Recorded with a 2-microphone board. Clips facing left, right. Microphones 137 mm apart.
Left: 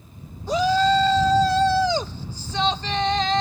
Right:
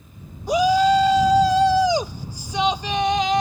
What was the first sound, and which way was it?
A shout, 15° right (ahead or behind).